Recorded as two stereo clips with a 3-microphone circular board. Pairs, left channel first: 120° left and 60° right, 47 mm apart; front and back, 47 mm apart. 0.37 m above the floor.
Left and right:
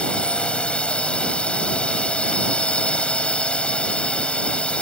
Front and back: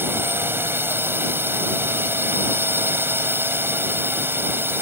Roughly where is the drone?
Behind.